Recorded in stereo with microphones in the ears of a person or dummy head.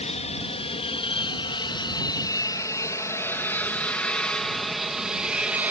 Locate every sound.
0.0 s an aircraft: 35° left (ahead or behind); by 5.7 s 5° right (ahead or behind)